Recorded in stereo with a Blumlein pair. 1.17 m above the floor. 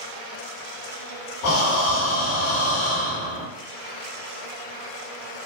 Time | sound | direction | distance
1.4 | breathing | 45° left | 1.0 m